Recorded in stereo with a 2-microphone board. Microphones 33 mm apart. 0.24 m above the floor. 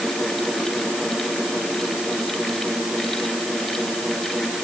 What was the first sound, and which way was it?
Only background noise.